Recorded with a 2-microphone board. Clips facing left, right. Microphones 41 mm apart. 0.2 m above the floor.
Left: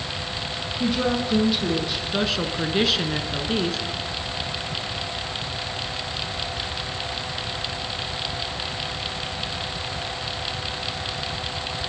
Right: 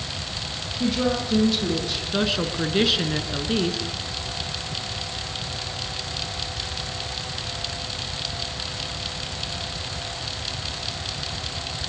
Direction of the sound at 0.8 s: 5° left (ahead or behind).